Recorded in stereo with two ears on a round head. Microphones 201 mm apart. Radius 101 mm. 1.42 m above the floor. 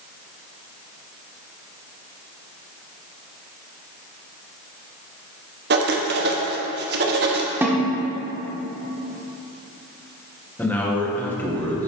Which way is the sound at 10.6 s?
10° left (ahead or behind).